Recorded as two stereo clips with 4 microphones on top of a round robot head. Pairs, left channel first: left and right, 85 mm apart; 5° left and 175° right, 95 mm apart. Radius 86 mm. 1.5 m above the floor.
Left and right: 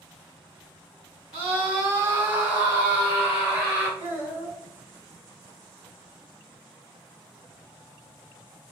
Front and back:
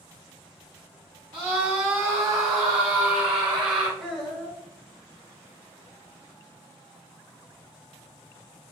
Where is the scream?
115° right, 0.7 m; by 3.9 s 175° right, 3 m.